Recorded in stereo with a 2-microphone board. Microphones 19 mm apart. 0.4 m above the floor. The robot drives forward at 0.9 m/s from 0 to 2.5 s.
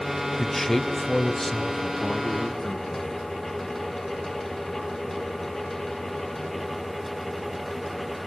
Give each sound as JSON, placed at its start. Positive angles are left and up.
{"t": 0.4, "sound": "a man speaking", "side_deg": 5, "distance_m": 1.4}